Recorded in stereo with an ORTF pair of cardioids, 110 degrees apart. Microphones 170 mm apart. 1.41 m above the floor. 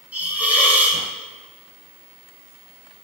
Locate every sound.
0.1 s a hiss: 10° right, 0.6 m